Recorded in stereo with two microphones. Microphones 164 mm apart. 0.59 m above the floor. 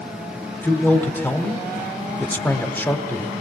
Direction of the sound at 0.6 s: 10° left (ahead or behind).